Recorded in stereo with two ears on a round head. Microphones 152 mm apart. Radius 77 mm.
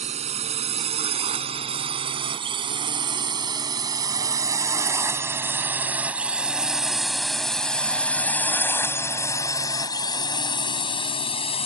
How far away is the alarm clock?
I don't hear an alarm clock.